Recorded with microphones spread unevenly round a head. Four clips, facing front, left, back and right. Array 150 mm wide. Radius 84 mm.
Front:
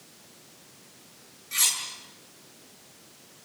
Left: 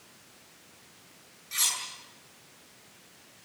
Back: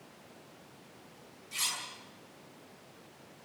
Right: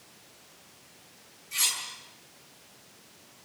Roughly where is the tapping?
No tapping in this recording.